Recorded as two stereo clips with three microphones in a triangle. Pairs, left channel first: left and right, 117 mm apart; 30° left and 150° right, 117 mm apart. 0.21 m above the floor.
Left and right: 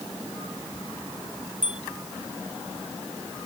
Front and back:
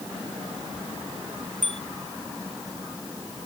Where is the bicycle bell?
45° left.